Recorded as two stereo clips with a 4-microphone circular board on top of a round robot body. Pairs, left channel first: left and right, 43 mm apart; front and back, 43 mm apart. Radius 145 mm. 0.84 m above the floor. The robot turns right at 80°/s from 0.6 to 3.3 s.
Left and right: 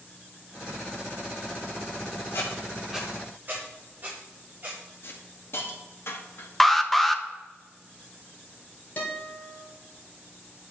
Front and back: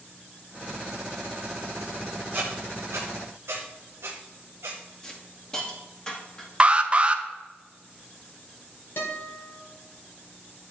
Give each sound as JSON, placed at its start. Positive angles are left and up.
{"t": 2.3, "sound": "a squeak", "azimuth_deg": 135, "distance_m": 0.7}
{"t": 5.0, "sound": "a hiss", "azimuth_deg": 70, "distance_m": 2.0}
{"t": 6.6, "sound": "an alarm", "azimuth_deg": 170, "distance_m": 1.1}
{"t": 9.0, "sound": "a guitar", "azimuth_deg": 35, "distance_m": 2.0}